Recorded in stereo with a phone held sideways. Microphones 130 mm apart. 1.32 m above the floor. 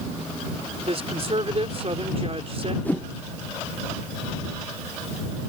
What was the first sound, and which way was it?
A woman speaking, 50° right (ahead or behind).